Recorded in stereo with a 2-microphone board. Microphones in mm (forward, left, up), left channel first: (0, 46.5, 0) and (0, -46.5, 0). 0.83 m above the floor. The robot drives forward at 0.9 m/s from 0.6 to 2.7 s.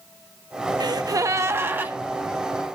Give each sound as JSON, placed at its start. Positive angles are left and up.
{"t": 0.8, "sound": "a gasp", "side_deg": -50, "distance_m": 0.6}